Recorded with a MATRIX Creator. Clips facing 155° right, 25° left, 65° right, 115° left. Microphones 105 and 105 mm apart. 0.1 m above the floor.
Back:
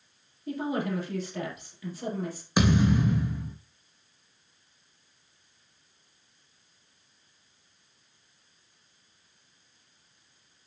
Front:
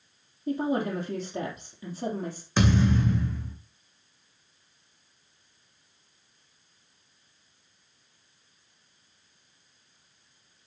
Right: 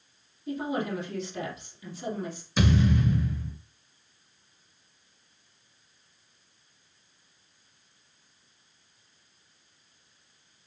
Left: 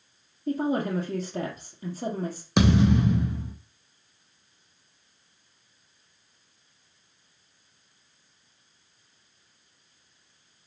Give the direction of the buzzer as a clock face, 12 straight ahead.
I don't hear a buzzer.